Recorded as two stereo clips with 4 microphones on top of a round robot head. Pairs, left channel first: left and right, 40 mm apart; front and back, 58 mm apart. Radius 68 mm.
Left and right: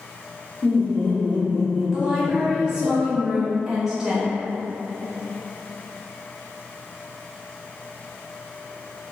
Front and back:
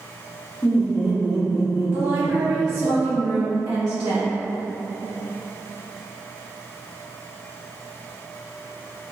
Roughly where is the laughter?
Behind left.